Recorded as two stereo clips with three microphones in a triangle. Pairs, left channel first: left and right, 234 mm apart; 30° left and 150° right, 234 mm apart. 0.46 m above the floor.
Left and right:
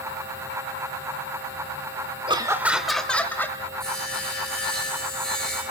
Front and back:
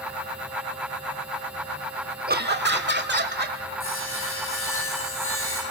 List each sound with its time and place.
2.3 s laughter: 145° right, 0.9 m; by 3.6 s 170° left, 2.5 m
3.8 s sawing: 5° left, 7.5 m